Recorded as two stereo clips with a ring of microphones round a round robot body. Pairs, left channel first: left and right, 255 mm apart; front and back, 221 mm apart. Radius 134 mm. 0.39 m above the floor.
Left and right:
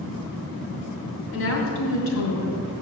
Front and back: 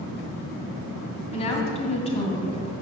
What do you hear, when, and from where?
1.3 s a woman speaking: 60° left, 2.5 m